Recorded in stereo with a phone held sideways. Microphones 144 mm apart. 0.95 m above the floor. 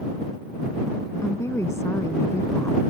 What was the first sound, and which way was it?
A woman speaking, 20° left (ahead or behind).